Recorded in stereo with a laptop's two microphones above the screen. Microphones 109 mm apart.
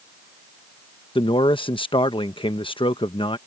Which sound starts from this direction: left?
A man speaking, at 1.1 s.